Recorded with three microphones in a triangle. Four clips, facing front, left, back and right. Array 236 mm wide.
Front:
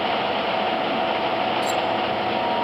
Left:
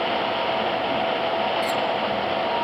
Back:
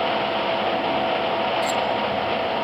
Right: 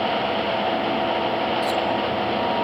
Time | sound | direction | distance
1.6 | cutlery clinking | 100° left | 3 m